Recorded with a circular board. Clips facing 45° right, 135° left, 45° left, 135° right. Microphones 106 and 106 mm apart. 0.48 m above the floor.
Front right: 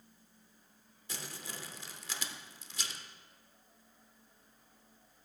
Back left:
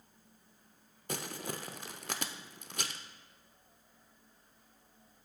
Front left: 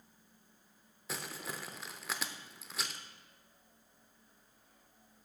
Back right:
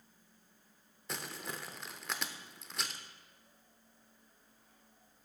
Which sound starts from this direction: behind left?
Crumpling, at 1.1 s.